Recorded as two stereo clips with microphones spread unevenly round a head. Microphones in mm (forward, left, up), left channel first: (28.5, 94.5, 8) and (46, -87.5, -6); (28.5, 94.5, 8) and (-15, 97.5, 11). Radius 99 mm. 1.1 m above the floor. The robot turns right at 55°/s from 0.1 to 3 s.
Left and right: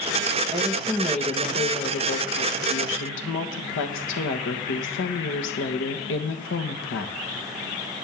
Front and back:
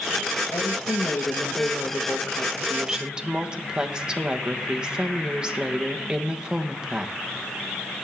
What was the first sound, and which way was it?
A woman speaking, 30° right.